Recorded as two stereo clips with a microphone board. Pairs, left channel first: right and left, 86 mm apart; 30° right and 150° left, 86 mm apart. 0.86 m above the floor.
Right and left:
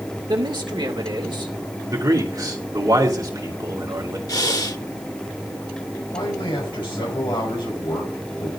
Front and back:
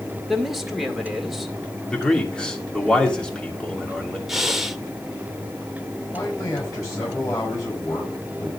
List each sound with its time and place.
0.3 s a man speaking: 60° left, 2 m
1.9 s a man speaking: 50° left, 2.5 m
4.3 s breathing: 125° right, 0.8 m
6.1 s a man speaking: 80° right, 5 m